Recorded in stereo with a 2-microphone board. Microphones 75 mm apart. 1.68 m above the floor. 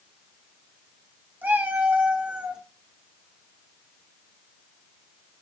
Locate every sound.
1.4 s a cat meowing: 25° right (ahead or behind), 1.2 m; by 2.6 s 10° right (ahead or behind), 1.2 m